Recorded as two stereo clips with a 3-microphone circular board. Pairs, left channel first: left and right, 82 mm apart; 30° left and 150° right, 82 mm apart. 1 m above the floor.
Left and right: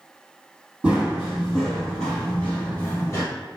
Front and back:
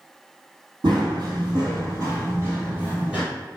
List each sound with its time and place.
0.8 s running footsteps: 165° right, 1.9 m; by 3.2 s 135° left, 1.5 m